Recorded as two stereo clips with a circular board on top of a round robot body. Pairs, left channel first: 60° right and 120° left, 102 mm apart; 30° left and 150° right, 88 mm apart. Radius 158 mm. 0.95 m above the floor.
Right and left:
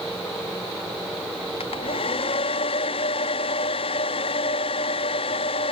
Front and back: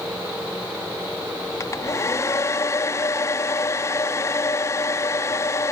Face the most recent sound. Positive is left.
turn(degrees=-25)